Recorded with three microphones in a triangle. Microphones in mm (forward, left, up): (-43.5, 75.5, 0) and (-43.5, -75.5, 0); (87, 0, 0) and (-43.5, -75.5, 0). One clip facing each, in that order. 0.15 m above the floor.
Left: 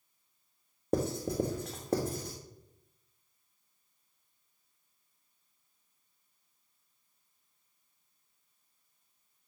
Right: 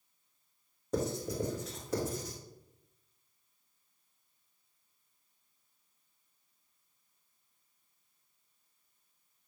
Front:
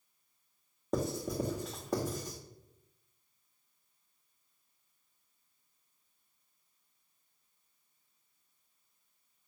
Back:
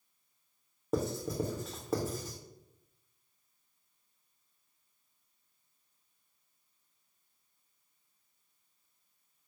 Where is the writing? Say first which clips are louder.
Left 3 dB, back 1 dB; 125° left, 1.8 m.